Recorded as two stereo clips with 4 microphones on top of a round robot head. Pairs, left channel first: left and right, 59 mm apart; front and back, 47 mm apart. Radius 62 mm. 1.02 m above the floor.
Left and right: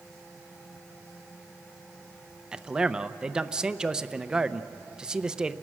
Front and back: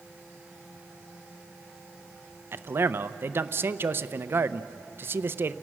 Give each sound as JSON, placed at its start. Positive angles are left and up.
{"t": 2.5, "sound": "a man speaking", "azimuth_deg": -165, "distance_m": 0.6}